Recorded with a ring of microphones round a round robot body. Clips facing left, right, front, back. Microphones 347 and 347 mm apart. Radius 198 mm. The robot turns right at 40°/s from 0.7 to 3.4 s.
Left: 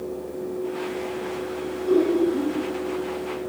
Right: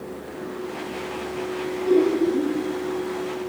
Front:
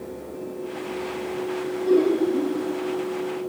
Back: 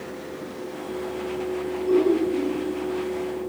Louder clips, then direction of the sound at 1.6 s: Right 1 dB, front 1 dB; 55° right.